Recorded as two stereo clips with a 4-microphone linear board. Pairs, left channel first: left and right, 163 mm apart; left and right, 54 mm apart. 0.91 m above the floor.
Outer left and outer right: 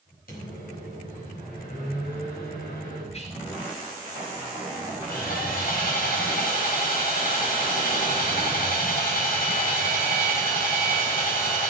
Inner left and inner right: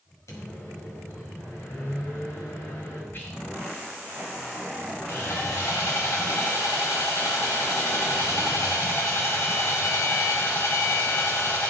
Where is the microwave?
75° left (ahead or behind), 4.5 m.